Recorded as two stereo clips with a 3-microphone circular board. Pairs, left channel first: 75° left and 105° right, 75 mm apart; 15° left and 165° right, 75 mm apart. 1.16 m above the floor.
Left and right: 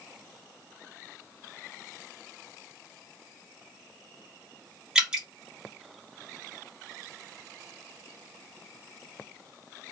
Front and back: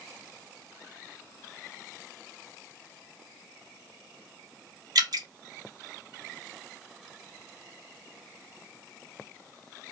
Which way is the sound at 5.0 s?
Straight behind.